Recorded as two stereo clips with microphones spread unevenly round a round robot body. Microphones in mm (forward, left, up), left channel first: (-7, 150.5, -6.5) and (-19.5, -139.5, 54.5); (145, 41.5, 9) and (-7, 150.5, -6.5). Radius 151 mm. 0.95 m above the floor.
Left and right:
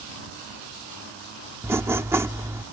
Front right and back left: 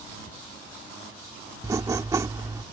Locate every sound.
1.6 s writing: 145° right